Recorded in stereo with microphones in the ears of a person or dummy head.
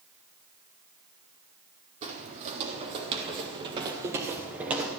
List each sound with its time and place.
2.0 s footsteps: 45° right (ahead or behind), 2.5 m; by 4.9 s 10° right (ahead or behind), 1.4 m